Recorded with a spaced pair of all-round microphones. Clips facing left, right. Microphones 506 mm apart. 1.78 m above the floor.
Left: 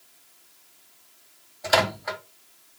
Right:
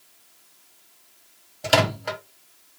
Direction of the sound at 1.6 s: 50° right (ahead or behind).